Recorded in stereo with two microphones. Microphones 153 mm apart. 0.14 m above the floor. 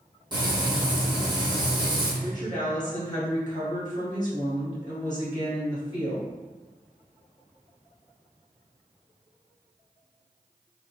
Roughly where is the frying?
Right.